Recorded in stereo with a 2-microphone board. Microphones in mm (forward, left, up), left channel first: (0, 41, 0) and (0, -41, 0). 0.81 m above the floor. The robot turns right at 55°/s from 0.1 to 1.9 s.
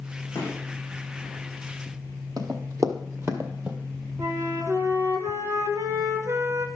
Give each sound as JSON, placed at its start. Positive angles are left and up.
{"t": 0.3, "sound": "a gunshot", "side_deg": 40, "distance_m": 5.5}
{"t": 2.4, "sound": "running footsteps", "side_deg": -50, "distance_m": 1.6}
{"t": 4.2, "sound": "a flute", "side_deg": -40, "distance_m": 1.4}